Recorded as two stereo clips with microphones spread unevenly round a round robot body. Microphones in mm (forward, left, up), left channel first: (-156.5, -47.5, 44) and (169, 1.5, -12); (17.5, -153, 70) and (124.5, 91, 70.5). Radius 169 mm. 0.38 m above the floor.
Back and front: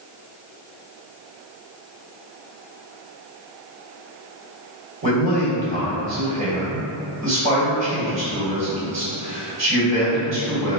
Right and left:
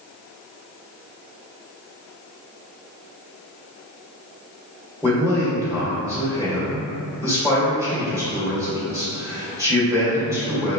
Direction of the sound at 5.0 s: 10° right.